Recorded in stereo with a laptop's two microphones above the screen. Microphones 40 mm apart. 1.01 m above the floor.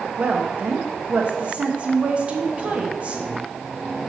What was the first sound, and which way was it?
A woman speaking, 30° right (ahead or behind).